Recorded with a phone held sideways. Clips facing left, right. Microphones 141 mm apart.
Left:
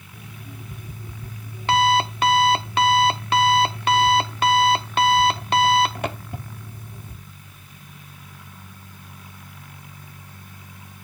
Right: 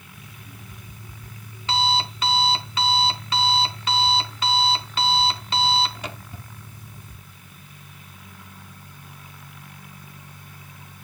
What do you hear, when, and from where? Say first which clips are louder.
0.1 s an alarm clock: left 6 dB; 60° left (ahead or behind), 0.9 m